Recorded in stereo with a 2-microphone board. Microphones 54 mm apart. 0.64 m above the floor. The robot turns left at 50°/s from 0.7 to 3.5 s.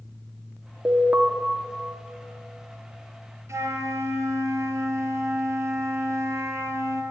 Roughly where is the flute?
Right.